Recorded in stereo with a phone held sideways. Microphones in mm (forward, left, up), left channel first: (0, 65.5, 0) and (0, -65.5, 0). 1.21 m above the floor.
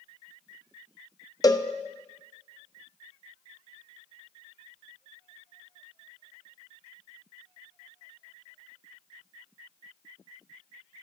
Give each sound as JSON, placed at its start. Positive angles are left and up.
{"t": 1.4, "sound": "a cowbell", "side_deg": 30, "distance_m": 0.5}